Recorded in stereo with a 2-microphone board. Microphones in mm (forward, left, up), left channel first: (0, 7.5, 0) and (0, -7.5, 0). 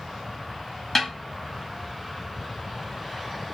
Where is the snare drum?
5° left (ahead or behind), 1.6 m.